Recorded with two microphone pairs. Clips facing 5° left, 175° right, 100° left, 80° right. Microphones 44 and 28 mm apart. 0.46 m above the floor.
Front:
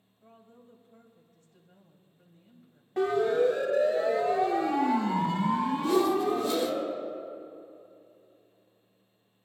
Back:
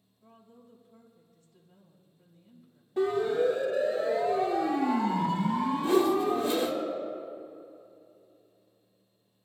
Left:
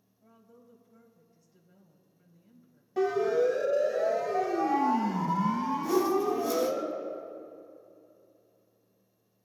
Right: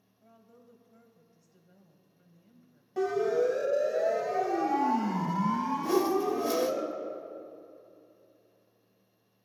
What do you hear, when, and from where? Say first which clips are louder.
0.2 s a woman speaking: front 1 dB, even; 30° right, 2.5 m
3.0 s a siren: front 1 dB, left 1 dB; 15° left, 2.5 m; by 6.8 s 50° right, 4 m
5.8 s a whoosh: back 1 dB, left 1 dB; 115° right, 1.1 m